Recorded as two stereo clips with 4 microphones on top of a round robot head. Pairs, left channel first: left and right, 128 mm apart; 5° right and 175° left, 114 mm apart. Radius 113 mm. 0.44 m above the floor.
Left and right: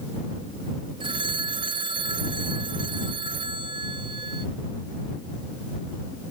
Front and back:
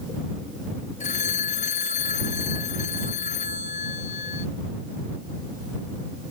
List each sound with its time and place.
1.0 s a phone ringing: 30° right